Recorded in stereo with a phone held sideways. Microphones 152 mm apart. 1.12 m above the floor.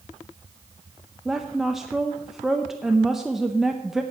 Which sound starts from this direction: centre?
A woman speaking, at 1.2 s.